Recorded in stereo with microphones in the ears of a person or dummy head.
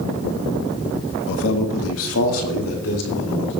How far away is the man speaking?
About 1.4 m.